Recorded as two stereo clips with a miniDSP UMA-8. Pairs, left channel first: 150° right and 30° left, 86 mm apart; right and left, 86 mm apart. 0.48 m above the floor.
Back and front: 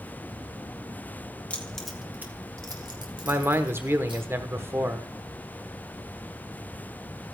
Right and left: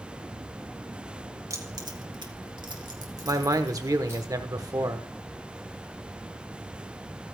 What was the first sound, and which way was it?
Keys jangling, 140° left.